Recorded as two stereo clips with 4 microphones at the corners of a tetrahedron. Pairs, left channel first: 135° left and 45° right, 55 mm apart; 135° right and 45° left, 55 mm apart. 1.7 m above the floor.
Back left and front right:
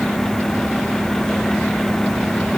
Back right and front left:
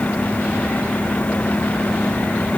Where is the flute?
No flute in this recording.